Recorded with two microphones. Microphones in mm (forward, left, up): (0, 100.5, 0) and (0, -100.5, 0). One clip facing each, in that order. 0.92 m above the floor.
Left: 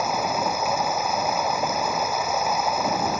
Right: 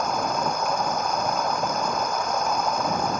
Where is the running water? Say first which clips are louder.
Left 1 dB; 5° left (ahead or behind).